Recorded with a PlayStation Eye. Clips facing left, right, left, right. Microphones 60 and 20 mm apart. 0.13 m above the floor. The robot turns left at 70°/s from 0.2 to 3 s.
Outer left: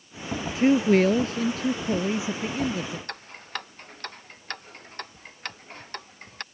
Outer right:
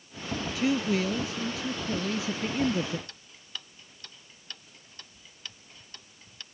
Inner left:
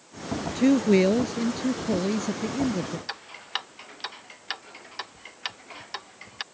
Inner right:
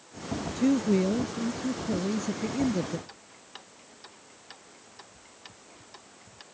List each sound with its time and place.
0.6 s a man speaking: 140° left; by 3.0 s 30° right
3.1 s ticking: 60° left (ahead or behind)